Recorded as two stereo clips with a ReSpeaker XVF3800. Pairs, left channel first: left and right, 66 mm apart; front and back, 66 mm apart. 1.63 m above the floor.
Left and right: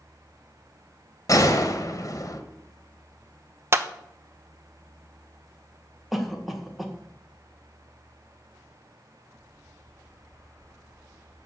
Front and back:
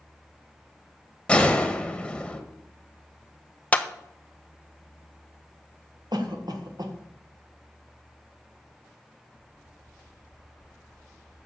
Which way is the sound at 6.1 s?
Straight behind.